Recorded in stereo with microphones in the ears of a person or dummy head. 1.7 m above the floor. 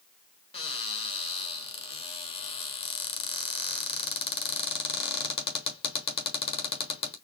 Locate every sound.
0.5 s a cupboard door: 35° left (ahead or behind), 0.8 m